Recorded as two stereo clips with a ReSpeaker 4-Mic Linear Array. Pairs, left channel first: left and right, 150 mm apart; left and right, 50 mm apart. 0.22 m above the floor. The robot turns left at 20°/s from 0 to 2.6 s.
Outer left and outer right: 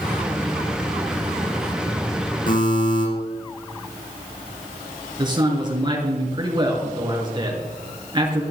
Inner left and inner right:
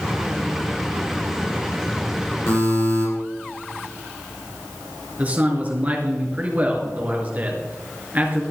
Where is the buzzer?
65° left (ahead or behind), 6 m; by 3.0 s 60° left (ahead or behind), 6 m.